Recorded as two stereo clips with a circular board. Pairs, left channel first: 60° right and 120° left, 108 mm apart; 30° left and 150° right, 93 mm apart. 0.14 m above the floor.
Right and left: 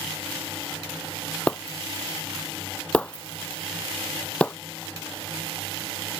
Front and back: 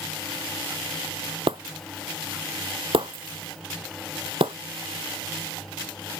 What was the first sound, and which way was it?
Breaking glass, 140° right.